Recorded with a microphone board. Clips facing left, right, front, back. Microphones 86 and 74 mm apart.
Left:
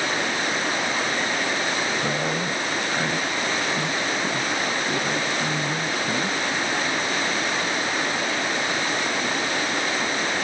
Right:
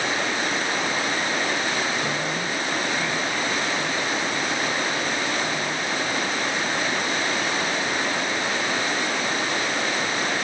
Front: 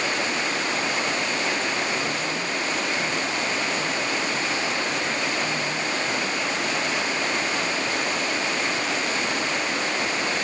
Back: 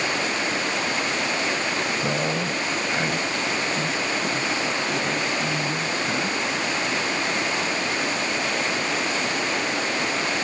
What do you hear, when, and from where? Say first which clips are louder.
2.0 s a man speaking: left 1 dB, back 3 dB; 155° left; by 6.8 s 115° left